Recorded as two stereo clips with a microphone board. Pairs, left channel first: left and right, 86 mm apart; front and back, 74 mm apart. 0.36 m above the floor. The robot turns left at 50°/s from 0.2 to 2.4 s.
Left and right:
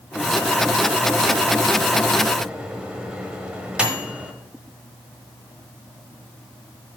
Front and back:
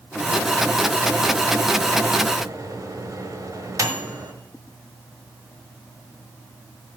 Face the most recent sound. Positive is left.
turn(degrees=-165)